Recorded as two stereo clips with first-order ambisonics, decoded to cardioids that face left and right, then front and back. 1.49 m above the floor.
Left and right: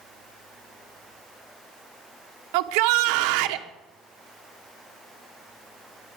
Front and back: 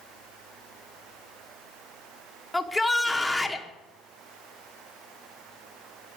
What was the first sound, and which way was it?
A shout, 85° right.